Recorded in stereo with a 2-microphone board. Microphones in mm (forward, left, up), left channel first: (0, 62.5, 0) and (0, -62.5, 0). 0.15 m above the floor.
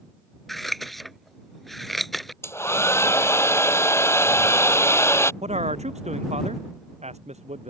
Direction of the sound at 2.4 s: 20° left (ahead or behind).